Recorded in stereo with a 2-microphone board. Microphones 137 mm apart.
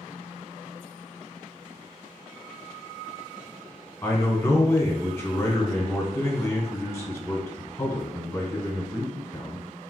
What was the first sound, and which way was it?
A man speaking, 20° left (ahead or behind).